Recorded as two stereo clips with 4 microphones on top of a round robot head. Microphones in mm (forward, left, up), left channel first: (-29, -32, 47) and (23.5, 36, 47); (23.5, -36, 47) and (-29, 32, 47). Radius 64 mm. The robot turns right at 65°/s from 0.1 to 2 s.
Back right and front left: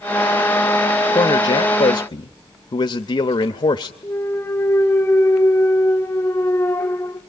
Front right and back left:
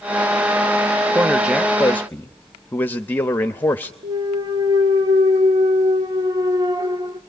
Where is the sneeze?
No sneeze in this recording.